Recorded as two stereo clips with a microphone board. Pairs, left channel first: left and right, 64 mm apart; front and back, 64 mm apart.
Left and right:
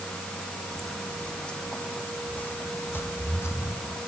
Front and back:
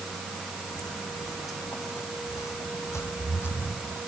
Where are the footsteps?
5° left, 4 m; by 4.0 s 60° left, 4 m.